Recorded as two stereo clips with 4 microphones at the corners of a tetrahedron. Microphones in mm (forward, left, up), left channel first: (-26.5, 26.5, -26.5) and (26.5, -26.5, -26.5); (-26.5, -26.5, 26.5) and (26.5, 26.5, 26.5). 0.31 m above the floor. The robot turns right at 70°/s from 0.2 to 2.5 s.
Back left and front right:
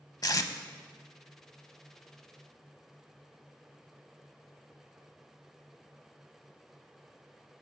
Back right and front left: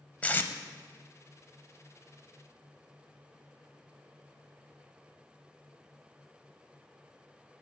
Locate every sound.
0.2 s tape being pulled: 155° left, 0.5 m; by 0.5 s 175° left, 0.5 m